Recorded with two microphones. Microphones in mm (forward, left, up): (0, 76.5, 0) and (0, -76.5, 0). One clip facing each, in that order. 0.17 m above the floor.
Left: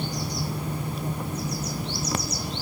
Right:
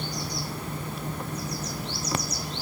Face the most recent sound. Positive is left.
No sound to turn to.